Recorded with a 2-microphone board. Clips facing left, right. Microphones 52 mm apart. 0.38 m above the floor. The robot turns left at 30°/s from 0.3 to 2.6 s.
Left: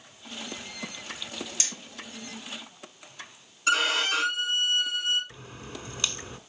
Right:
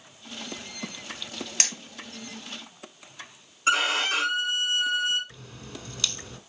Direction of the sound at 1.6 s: 75° right (ahead or behind).